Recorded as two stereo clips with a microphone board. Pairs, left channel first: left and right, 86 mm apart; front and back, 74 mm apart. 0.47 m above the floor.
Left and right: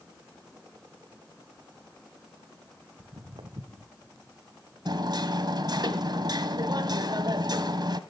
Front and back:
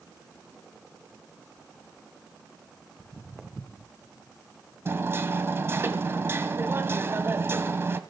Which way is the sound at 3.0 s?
90° right.